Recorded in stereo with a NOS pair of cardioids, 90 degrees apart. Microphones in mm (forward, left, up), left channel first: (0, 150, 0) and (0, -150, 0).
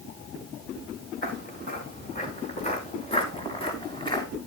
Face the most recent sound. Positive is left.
turn(degrees=15)